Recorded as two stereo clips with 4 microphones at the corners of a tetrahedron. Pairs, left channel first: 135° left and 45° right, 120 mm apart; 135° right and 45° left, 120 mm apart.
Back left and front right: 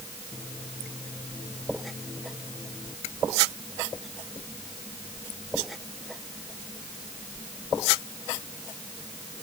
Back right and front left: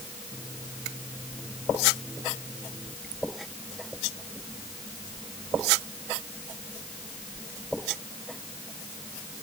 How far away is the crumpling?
No crumpling in this recording.